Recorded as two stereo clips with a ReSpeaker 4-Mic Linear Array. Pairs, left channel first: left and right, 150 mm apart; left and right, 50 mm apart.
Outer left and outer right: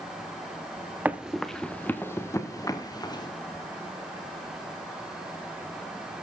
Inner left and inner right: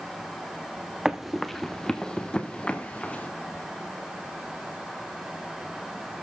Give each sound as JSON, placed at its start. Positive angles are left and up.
{"t": 1.1, "sound": "running footsteps", "side_deg": -10, "distance_m": 1.0}